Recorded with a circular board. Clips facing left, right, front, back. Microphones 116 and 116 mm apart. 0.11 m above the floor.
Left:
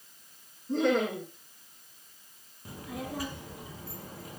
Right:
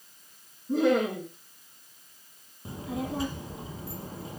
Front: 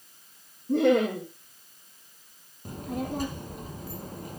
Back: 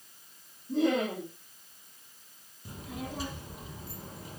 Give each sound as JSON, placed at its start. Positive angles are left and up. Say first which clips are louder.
{"t": 0.7, "sound": "laughter", "louder": "right 3 dB, front 6 dB", "azimuth_deg": -10, "distance_m": 6.0}
{"t": 2.6, "sound": "a child speaking", "louder": "right 5 dB, front 7 dB", "azimuth_deg": -30, "distance_m": 2.5}